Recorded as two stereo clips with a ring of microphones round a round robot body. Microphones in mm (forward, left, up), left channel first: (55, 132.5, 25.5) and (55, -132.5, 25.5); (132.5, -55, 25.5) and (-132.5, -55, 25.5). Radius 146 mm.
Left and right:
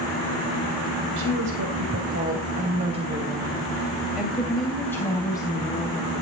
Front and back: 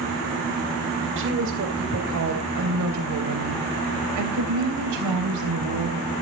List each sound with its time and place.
1.2 s a woman speaking: 140° right, 3.5 m; by 6.1 s 160° left, 4 m